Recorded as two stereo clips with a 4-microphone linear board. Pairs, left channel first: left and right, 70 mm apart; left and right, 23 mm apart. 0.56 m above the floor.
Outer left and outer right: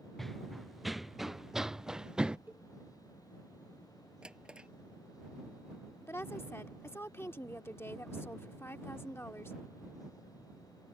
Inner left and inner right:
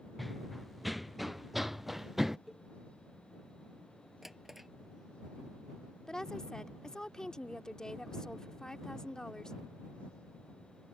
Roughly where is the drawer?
Centre.